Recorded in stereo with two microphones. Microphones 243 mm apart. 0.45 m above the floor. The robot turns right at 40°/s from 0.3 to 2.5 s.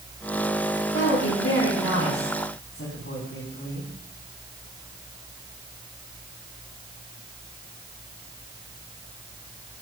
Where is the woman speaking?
55° left, 4.5 m; by 3.9 s 120° left, 4.5 m.